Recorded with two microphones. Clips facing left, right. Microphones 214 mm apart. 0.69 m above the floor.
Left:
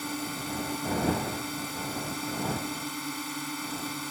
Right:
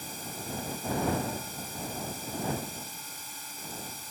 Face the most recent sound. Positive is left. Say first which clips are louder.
# left 7 dB
turn(degrees=80)